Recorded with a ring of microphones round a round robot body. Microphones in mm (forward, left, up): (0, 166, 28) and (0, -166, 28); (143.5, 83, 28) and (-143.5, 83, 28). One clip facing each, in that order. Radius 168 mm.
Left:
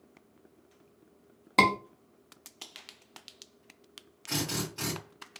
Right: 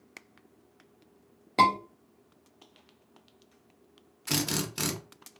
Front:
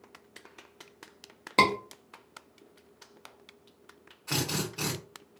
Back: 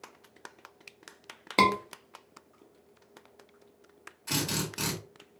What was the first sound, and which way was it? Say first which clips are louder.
A scream: left 2 dB, even; 90° left.